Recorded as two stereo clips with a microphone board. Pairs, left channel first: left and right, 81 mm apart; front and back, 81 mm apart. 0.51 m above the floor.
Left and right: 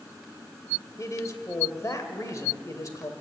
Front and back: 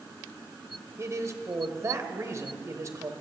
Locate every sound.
1.0 s a man speaking: 135° left, 2 m